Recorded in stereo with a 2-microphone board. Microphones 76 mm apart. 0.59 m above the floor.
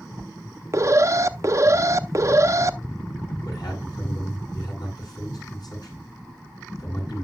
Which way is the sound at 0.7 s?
40° right (ahead or behind).